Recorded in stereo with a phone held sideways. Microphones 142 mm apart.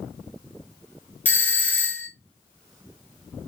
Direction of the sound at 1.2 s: 15° left (ahead or behind).